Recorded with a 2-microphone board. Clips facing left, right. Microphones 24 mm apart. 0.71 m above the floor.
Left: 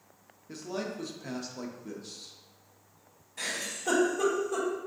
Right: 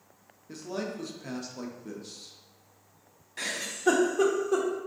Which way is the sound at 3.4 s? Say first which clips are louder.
Right 1 dB; 65° right (ahead or behind).